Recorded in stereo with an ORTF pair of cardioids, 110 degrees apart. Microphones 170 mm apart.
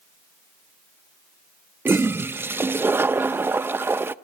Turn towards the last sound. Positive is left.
turn(degrees=-15)